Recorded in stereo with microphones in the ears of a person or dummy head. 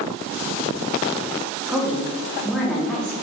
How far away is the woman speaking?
About 3 m.